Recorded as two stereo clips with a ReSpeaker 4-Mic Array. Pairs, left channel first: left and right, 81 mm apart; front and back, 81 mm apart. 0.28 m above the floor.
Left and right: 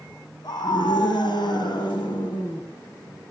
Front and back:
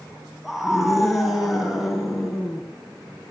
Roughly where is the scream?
Left.